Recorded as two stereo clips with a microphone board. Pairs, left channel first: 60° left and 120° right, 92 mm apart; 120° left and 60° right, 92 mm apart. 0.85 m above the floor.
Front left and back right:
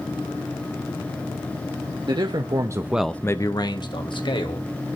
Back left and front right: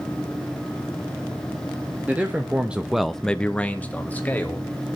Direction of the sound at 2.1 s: 130° right.